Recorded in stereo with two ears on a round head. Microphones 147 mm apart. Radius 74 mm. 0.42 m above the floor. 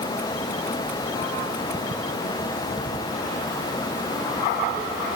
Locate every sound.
Only background noise.